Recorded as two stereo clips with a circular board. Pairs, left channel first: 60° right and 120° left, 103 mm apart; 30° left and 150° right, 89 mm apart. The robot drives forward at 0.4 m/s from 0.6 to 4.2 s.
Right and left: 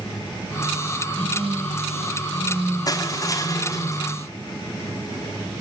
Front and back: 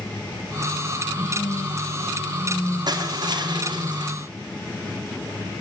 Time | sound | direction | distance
1.1 | a phone buzzing | 25° left | 9.5 m
2.9 | crushing | 115° right | 3.5 m